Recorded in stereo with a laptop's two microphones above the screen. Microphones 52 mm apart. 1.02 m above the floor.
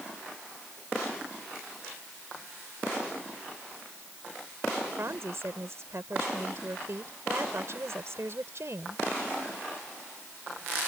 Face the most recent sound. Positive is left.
turn(degrees=-55)  # may be behind; listen again after turning